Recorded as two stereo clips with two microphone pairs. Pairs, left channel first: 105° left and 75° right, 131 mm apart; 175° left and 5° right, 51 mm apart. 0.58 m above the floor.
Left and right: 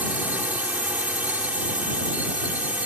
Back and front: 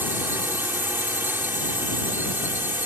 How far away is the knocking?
No knocking in this recording.